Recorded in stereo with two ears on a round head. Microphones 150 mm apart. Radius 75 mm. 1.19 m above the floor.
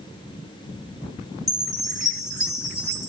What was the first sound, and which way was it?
A chime, 20° left (ahead or behind).